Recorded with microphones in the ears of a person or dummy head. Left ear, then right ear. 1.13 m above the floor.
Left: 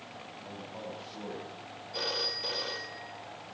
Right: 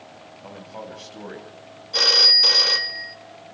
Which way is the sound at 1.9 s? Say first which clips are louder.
Right 19 dB; 75° right (ahead or behind).